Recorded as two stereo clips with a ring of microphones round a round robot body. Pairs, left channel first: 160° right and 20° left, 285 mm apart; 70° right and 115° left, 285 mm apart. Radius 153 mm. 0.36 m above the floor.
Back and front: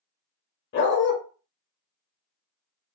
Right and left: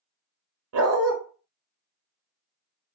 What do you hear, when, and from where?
0.7 s a dog barking: 150° left, 0.7 m